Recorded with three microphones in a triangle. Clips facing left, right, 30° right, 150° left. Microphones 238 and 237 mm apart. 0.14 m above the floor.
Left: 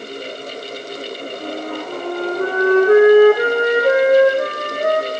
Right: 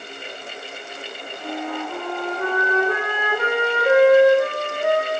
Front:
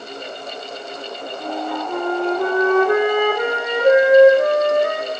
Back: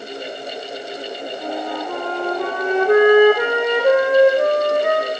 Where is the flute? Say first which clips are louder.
Even, front 2 dB; 55° left, 5 m.